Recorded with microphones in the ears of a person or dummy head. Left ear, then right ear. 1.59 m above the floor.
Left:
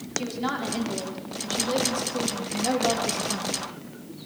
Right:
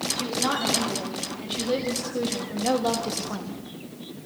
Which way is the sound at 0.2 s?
Centre (ahead or behind).